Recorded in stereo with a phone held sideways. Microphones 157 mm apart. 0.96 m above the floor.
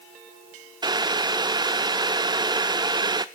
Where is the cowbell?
No cowbell in this recording.